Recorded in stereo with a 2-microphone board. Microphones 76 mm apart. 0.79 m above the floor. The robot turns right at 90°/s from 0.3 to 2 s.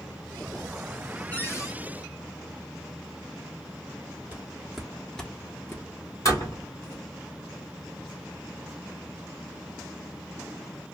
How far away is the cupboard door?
About 0.7 m.